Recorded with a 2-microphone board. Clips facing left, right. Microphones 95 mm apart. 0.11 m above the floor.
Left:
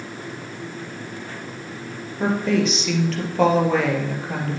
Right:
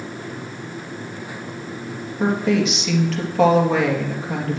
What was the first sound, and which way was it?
A woman speaking, centre (ahead or behind).